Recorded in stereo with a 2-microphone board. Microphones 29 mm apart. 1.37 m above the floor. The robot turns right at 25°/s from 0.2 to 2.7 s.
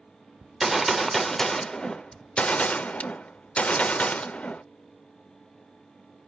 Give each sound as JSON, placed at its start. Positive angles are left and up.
{"t": 0.4, "sound": "a gunshot", "azimuth_deg": -10, "distance_m": 0.5}